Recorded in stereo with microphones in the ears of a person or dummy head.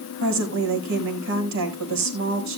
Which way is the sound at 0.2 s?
80° right.